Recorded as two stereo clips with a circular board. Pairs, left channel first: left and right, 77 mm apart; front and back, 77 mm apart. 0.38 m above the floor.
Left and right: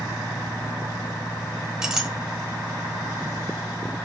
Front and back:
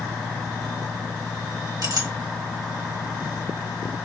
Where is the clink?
170° right, 1.4 m.